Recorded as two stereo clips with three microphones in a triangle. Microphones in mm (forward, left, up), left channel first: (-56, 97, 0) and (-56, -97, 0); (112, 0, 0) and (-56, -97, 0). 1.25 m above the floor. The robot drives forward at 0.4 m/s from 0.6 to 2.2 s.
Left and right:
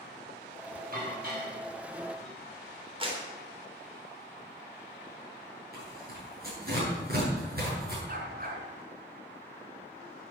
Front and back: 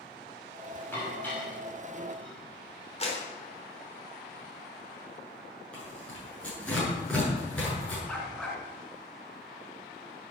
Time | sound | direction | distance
0.9 | dishes clattering | 50° right | 6.5 m
3.0 | a clap | 30° right | 3.5 m
5.7 | tearing paper | 55° right | 8 m
8.1 | a dog barking | 55° right | 3 m